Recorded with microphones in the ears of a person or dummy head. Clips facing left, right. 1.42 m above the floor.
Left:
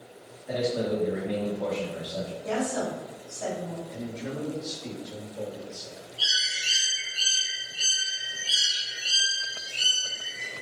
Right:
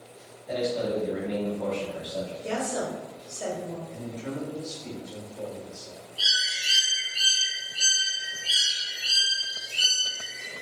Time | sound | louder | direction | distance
0.5 | a man speaking | even | 10° left (ahead or behind) | 1.5 m
2.4 | a woman speaking | left 2 dB | 35° right (ahead or behind) | 1.9 m
3.9 | a man speaking | even | 35° left (ahead or behind) | 2.0 m
6.2 | a bird | right 1 dB | 35° right (ahead or behind) | 1.8 m